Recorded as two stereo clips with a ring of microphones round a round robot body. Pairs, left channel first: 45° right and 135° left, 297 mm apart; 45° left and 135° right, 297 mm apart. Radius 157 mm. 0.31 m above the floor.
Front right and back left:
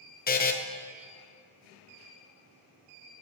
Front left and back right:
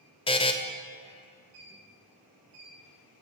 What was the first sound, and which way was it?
A buzzer, 15° right.